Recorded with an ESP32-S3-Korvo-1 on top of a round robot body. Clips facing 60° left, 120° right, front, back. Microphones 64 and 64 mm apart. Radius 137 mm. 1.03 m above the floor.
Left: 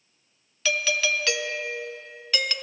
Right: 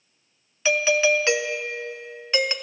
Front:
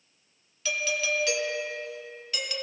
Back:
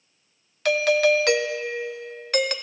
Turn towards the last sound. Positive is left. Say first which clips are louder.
# right 6 dB, back 11 dB
turn(degrees=180)